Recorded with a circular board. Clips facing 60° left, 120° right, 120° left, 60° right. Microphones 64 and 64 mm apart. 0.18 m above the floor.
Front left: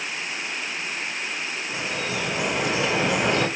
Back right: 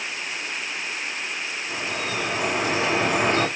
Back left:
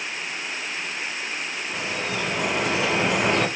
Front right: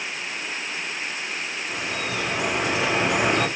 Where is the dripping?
145° right, 1.9 m.